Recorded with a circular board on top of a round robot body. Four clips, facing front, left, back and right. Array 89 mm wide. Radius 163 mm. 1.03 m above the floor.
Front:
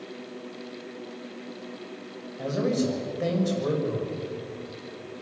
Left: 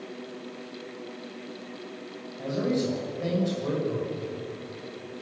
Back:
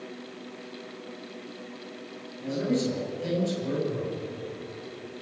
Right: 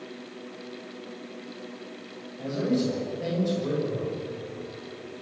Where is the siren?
No siren in this recording.